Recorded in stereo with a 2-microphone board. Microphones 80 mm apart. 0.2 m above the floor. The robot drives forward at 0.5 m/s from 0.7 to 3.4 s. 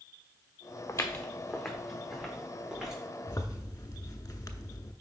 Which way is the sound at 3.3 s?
50° left (ahead or behind).